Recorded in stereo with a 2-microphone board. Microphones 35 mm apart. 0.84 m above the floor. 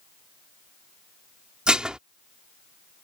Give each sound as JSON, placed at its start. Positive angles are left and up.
{"t": 1.7, "sound": "dishes clattering", "side_deg": -25}